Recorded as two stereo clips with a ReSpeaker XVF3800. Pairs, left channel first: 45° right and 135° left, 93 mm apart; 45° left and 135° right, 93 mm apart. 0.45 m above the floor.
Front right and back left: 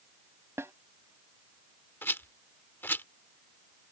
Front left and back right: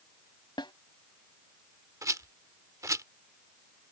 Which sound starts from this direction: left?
A snare drum, at 0.6 s.